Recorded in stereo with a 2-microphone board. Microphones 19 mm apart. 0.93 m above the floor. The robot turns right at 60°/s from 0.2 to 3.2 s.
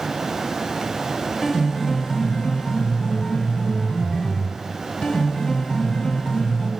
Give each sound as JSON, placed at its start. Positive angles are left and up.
{"t": 1.4, "sound": "a piano", "azimuth_deg": 20, "distance_m": 4.5}